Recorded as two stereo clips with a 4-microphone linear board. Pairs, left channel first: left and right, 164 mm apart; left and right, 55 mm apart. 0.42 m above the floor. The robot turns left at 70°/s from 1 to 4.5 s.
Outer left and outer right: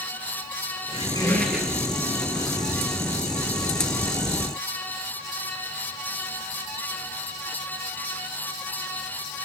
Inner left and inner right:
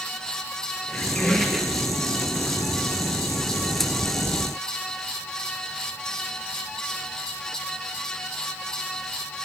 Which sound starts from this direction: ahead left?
A squeak, at 0.9 s.